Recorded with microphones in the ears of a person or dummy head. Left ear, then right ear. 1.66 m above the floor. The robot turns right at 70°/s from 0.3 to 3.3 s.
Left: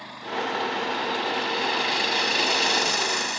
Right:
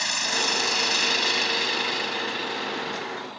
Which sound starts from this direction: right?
An engine running, at 0.0 s.